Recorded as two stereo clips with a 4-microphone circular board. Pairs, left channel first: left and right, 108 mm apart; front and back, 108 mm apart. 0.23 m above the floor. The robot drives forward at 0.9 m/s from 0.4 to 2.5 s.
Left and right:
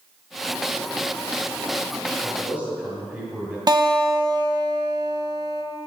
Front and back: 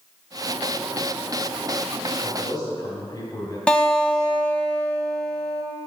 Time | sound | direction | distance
2.2 | a man speaking | 15° right | 1.9 m
3.7 | a guitar | 75° right | 0.6 m